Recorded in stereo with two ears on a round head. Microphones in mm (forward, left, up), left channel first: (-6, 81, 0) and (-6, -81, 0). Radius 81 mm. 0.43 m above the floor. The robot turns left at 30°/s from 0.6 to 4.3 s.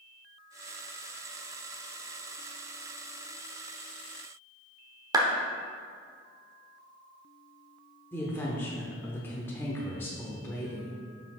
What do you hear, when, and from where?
5.1 s a clap: 20° right (ahead or behind), 0.9 m
8.1 s a woman speaking: 10° left (ahead or behind), 0.9 m